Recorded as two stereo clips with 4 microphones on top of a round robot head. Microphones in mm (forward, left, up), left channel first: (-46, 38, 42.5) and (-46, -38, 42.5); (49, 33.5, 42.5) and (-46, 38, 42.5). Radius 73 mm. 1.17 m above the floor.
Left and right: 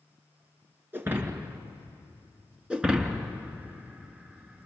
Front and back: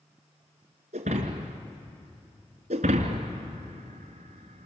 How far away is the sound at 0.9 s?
About 2 m.